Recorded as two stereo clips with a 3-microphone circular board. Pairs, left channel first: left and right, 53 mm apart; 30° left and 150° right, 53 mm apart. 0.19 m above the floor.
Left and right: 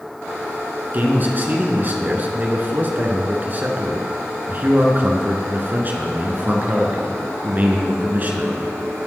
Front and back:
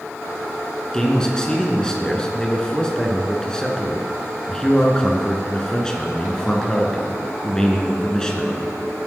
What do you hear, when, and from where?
0.9 s a man speaking: 45° right, 2.5 m